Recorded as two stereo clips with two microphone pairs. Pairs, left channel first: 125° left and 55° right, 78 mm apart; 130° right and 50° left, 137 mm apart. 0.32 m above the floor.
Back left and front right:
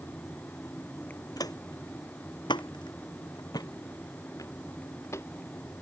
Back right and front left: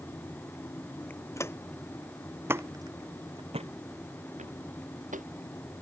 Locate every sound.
1.4 s footsteps: 160° left; by 5.3 s 70° left